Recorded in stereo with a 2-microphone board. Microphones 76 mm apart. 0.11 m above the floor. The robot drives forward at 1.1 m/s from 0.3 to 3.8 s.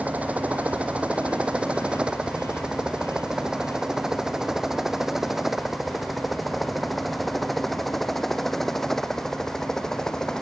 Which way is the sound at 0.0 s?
20° right (ahead or behind).